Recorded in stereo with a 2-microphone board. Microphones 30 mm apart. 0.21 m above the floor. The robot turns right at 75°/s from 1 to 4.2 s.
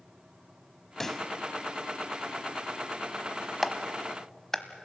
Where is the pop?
15° left (ahead or behind), 0.7 m; by 1.3 s 5° left (ahead or behind), 0.7 m.